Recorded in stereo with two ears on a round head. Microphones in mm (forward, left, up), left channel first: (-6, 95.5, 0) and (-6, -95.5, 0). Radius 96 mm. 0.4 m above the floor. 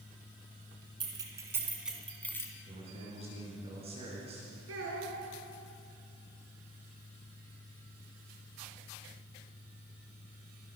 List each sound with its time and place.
1.0 s keys jangling: 25° right (ahead or behind), 2.5 m; by 2.5 s 15° left (ahead or behind), 2 m
2.7 s a man speaking: 30° right (ahead or behind), 4.5 m
4.7 s a child speaking: 75° right (ahead or behind), 3.5 m